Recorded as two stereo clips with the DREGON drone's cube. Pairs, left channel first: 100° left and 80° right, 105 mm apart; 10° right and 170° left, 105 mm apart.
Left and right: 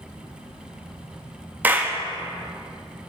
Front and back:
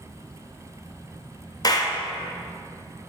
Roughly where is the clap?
Ahead.